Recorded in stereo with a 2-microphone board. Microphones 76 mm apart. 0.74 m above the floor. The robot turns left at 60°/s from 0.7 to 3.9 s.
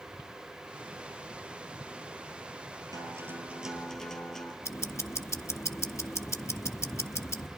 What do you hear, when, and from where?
2.9 s a guitar: 125° right, 3.5 m; by 4.5 s 175° left, 3.5 m
4.6 s ticking: 40° left (ahead or behind), 1.0 m